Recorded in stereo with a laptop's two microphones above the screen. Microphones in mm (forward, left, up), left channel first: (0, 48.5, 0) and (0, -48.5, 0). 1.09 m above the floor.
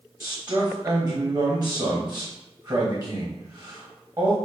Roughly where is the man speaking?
Right.